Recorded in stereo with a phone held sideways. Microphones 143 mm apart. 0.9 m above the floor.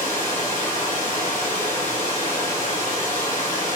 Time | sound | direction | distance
0.0 | running water | 60° left (ahead or behind) | 2 m